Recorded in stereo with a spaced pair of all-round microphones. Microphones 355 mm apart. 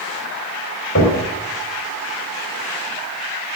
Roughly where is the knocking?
Left.